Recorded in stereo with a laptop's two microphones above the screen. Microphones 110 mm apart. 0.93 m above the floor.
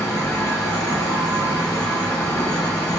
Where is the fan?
20° left (ahead or behind), 2.5 m.